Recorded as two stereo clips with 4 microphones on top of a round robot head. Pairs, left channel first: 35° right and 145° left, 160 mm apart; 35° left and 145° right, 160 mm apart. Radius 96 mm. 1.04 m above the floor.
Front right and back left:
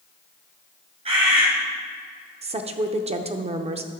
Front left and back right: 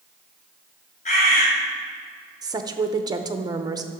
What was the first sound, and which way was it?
A bird, 85° left.